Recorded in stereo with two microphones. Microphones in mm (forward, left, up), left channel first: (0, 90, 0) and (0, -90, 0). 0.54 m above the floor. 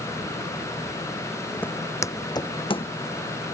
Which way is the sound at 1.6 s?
10° left (ahead or behind).